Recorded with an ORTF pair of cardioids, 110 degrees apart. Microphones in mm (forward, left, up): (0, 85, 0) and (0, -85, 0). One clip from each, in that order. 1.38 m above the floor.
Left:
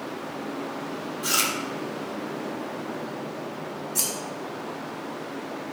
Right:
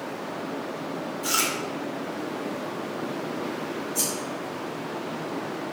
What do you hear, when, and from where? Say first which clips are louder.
1.2 s chewing: left 1 dB; 15° left, 0.5 m
4.0 s scissors: left 1 dB; 40° left, 1.3 m